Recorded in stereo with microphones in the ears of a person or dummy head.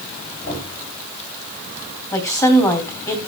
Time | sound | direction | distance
0.4 | knocking | 50° left (ahead or behind) | 9 m
2.1 | a woman speaking | 20° left (ahead or behind) | 2.5 m